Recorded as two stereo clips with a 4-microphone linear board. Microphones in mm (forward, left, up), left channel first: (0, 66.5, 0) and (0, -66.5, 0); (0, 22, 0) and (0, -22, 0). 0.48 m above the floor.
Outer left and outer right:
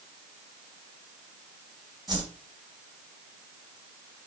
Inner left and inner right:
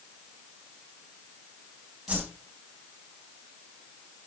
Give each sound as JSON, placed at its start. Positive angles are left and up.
{"t": 2.1, "sound": "a whoosh", "side_deg": -35, "distance_m": 3.0}